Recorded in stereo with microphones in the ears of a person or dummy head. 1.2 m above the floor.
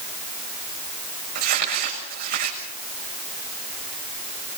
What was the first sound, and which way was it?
Crumpling, 45° right (ahead or behind).